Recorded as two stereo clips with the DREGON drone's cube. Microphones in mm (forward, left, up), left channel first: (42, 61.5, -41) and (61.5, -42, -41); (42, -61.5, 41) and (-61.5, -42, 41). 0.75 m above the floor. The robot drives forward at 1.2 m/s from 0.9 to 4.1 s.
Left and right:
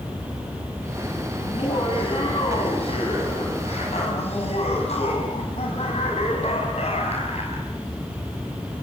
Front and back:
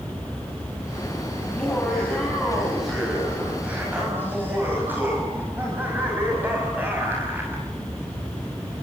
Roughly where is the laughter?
Left.